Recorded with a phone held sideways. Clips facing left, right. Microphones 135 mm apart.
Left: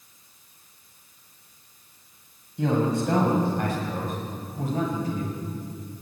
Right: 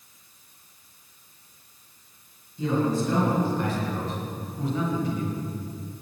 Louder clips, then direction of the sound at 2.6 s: Left 1 dB; 70° left (ahead or behind).